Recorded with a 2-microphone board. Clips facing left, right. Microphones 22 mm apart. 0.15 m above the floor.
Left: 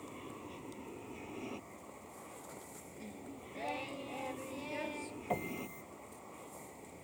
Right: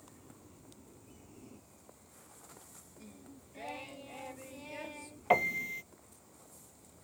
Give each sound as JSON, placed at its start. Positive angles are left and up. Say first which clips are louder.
{"t": 0.0, "sound": "an aircraft", "louder": "left 10 dB", "side_deg": 60}
{"t": 3.0, "sound": "singing", "louder": "left 5 dB", "side_deg": 5}
{"t": 5.3, "sound": "a piano", "louder": "right 11 dB", "side_deg": -50}